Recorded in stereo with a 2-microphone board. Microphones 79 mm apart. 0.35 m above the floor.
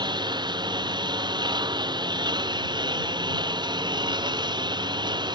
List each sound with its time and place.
0.0 s a lawn mower: 75° right (ahead or behind)